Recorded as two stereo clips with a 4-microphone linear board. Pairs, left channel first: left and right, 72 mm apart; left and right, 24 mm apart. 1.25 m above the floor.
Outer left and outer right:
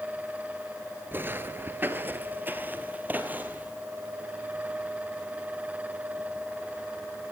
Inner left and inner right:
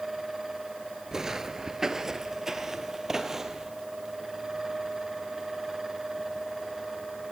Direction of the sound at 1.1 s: 25° right (ahead or behind).